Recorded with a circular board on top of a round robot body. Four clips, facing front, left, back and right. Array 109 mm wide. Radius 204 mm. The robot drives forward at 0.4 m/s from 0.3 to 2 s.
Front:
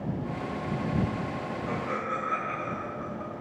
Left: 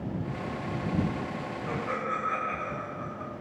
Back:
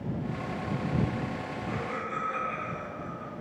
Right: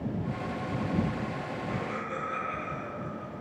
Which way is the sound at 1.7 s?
55° left.